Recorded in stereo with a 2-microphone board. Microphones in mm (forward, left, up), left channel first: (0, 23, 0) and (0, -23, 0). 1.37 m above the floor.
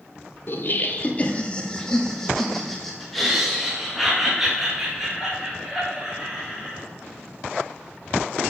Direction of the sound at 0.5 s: 50° left (ahead or behind).